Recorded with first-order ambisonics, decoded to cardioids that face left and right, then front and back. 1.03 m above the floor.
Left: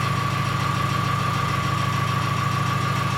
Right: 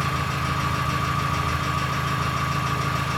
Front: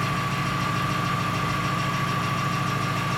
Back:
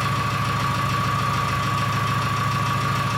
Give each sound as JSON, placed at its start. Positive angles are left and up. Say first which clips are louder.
{"t": 0.0, "sound": "an engine running", "louder": "left 1 dB, back 3 dB", "azimuth_deg": 170, "distance_m": 1.6}